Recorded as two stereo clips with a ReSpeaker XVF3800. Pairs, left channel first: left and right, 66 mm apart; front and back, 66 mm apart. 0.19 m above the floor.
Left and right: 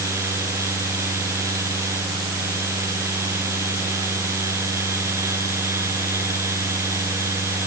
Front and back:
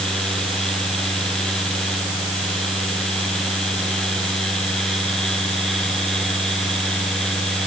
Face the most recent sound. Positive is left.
No sound to turn to.